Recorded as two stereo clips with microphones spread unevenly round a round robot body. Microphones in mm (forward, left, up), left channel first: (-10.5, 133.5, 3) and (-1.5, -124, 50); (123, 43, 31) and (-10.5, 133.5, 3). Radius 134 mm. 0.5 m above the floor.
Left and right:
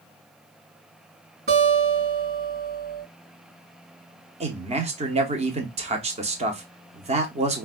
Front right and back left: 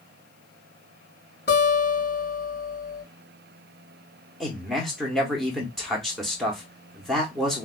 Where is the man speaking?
145° right, 0.7 m.